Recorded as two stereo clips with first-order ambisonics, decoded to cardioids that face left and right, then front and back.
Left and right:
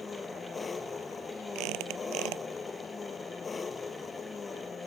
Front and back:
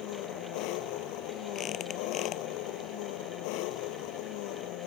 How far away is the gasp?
I don't hear a gasp.